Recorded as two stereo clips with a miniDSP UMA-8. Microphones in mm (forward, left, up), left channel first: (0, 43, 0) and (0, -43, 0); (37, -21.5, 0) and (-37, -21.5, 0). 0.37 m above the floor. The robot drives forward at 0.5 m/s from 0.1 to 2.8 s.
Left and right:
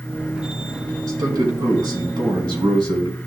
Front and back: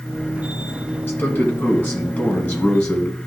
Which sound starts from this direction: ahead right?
A man speaking, at 1.1 s.